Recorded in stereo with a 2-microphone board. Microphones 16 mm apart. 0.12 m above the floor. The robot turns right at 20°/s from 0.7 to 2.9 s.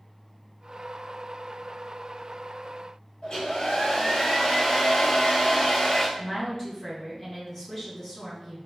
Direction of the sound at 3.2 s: 55° left (ahead or behind).